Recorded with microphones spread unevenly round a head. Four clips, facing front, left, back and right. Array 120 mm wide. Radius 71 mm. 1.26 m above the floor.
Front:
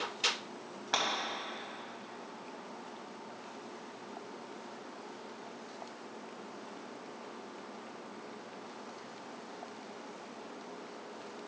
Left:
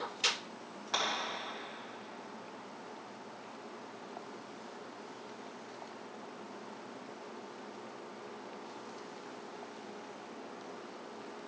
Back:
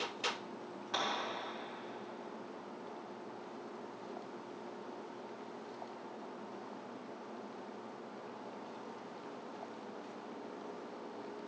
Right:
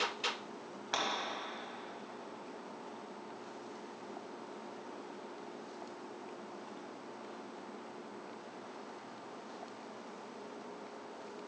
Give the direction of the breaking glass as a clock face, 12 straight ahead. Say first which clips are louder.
Left 1 dB, front 4 dB; 12 o'clock.